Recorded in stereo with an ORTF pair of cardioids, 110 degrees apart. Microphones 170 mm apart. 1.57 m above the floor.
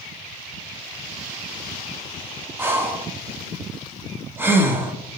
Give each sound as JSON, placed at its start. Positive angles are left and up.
{"t": 2.6, "sound": "breathing", "azimuth_deg": -15, "distance_m": 1.2}